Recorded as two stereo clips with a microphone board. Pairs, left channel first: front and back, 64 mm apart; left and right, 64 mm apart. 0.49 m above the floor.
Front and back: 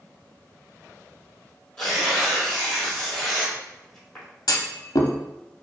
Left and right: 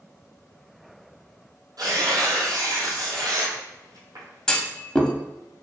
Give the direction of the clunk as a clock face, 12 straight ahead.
12 o'clock.